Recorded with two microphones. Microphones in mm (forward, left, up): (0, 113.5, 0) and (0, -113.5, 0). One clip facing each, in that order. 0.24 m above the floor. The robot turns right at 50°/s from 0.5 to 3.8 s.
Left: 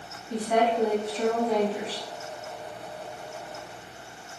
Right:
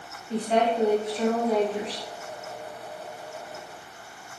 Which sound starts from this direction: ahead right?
A woman speaking, at 0.3 s.